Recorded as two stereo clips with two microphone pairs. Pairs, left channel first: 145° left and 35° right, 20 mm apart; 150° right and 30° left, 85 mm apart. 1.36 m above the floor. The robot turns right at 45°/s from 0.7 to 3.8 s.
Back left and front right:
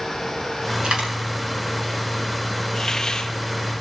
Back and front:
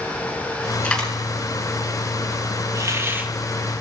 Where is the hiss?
75° left, 1.6 m; by 3.3 s 100° left, 1.6 m.